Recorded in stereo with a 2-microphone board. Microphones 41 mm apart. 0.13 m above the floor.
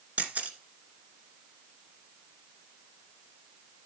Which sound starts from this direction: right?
A camera shutter, at 0.2 s.